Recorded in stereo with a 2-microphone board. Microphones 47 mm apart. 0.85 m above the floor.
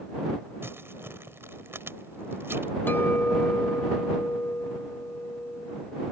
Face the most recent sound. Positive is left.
turn(degrees=45)  # may be behind; listen again after turning